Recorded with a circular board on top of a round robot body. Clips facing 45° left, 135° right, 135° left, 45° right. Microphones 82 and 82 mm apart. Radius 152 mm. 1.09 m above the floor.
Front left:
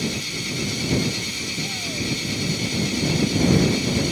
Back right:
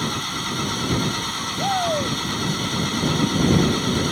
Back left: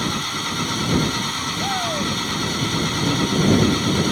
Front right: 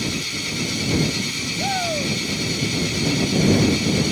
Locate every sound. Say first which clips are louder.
0.0 s an engine running: back right 2 dB, back left 3 dB; straight behind
1.6 s a shout: back right 11 dB, front right 1 dB; 130° right